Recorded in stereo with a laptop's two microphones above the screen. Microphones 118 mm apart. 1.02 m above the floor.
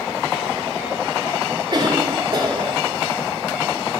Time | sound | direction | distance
1.7 | a cough | 45° right (ahead or behind) | 2.5 m